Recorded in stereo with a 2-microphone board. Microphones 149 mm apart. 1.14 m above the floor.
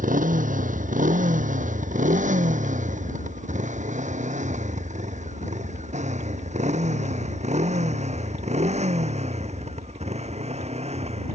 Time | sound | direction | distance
0.0 | a motorcycle | 60° right (ahead or behind) | ?